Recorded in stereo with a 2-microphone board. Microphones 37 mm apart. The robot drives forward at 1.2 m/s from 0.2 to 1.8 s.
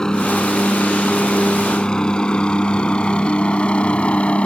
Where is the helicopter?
20° left (ahead or behind); by 4.5 s 35° left (ahead or behind).